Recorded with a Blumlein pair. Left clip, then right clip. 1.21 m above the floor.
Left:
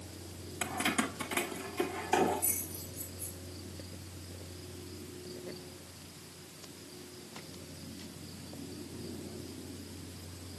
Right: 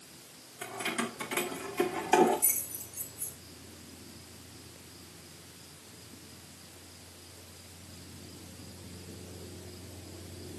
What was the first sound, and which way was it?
Keys jangling, 30° left.